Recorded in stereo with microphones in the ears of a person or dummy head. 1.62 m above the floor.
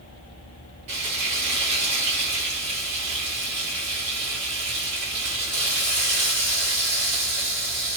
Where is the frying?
40° right (ahead or behind), 1.4 m.